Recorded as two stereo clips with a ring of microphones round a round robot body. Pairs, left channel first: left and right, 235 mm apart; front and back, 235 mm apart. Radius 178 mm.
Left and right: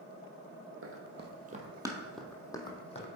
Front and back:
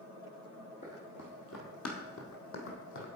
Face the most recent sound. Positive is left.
turn(degrees=30)